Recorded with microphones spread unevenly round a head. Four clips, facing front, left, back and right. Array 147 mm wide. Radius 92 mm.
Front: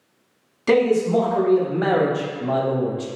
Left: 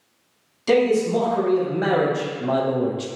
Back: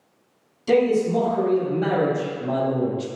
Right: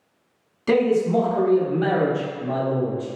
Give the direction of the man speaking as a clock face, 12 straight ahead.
12 o'clock.